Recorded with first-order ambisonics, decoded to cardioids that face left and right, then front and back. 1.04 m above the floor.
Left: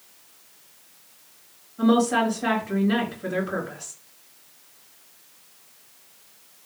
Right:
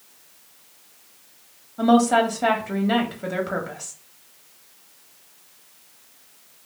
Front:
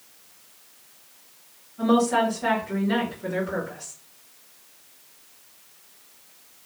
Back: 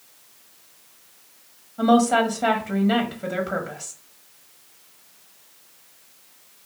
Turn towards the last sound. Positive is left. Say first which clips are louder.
# right 3 dB, back 3 dB
turn(degrees=-125)